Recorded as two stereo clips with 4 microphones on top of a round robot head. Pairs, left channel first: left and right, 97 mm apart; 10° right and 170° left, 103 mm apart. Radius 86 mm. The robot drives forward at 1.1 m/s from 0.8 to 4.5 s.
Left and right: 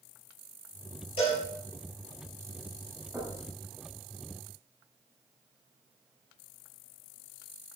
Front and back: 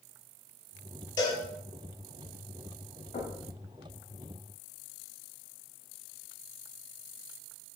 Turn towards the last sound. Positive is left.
turn(degrees=-5)